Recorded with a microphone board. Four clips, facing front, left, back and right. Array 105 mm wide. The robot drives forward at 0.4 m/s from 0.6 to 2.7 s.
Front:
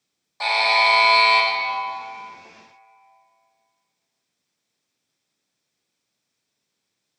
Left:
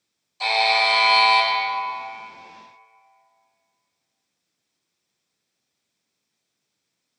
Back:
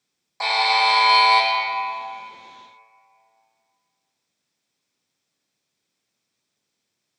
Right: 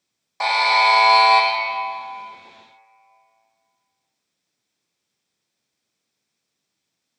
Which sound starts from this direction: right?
A buzzer, at 0.4 s.